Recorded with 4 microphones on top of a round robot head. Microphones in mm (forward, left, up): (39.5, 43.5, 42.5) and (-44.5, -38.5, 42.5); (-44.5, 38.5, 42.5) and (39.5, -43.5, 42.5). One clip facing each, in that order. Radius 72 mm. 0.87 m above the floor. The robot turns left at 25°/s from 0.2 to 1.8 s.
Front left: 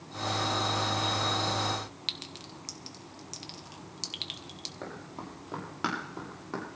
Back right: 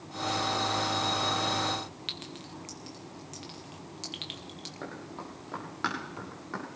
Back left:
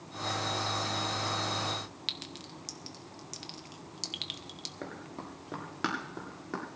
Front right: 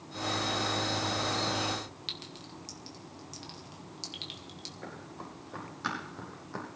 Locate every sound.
2.1 s a clink: 100° left, 1.1 m
4.8 s running footsteps: 130° left, 6 m; by 6.7 s 115° left, 7.5 m